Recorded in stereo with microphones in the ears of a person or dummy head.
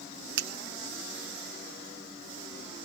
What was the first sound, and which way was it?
A finger snap, 65° right (ahead or behind).